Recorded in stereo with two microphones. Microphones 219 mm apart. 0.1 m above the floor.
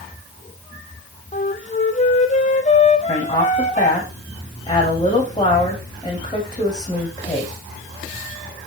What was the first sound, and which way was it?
A flute, 30° left (ahead or behind).